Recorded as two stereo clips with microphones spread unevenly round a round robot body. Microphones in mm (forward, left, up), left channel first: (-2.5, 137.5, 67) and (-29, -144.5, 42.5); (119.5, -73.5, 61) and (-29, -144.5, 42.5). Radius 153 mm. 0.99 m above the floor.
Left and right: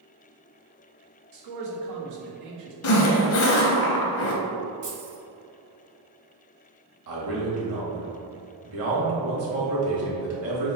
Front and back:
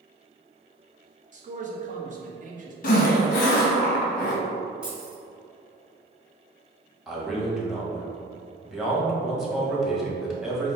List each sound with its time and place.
1.3 s a man speaking: 110° right, 1.1 m
2.8 s a zipper: 55° left, 0.7 m
4.8 s keys jangling: 70° right, 2.0 m
7.1 s a man speaking: 70° right, 1.6 m